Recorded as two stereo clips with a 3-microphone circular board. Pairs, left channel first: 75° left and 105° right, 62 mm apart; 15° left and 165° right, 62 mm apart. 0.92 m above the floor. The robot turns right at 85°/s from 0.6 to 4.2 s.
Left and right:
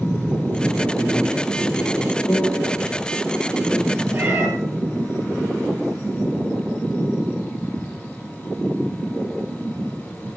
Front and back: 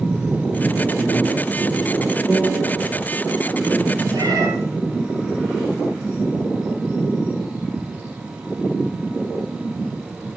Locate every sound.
2.3 s a piano: 105° left, 4.5 m; by 2.8 s 150° left, 4.5 m
4.1 s a cat meowing: 155° right, 9 m; by 4.5 s 150° right, 9 m